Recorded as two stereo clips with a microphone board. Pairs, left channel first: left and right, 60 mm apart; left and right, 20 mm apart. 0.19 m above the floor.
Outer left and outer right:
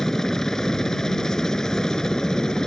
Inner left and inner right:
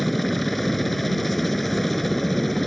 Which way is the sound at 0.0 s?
5° left (ahead or behind).